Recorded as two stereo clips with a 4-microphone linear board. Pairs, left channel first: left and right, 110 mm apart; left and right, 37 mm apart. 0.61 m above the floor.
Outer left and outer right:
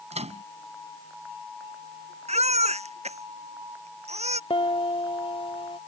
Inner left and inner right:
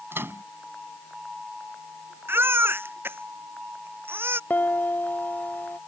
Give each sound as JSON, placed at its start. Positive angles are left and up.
{"t": 0.1, "sound": "a microwave", "side_deg": -80}
{"t": 2.3, "sound": "a baby crying", "side_deg": -75}
{"t": 4.5, "sound": "a piano", "side_deg": 60}